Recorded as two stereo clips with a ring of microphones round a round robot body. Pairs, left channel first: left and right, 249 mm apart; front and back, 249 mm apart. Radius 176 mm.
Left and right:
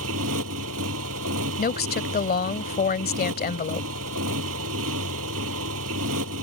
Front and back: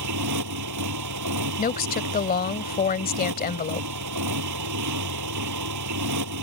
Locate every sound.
0.0 s a motorcycle: 145° right
1.6 s a woman speaking: 45° left